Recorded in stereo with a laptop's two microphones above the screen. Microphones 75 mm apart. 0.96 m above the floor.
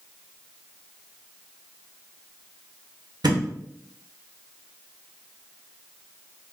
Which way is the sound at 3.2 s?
65° right (ahead or behind).